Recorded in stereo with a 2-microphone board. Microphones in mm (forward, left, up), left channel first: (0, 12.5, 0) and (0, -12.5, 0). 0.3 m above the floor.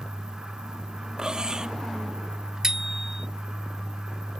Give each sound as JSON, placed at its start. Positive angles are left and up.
{"t": 1.2, "sound": "cutlery clinking", "side_deg": -35}
{"t": 2.6, "sound": "a bicycle bell", "side_deg": -25}